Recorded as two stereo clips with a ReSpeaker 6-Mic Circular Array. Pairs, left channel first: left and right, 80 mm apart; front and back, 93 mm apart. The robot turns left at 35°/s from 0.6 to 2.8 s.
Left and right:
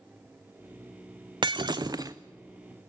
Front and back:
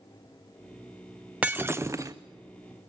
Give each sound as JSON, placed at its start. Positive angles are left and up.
{"t": 1.4, "sound": "breaking glass", "azimuth_deg": -105, "distance_m": 0.5}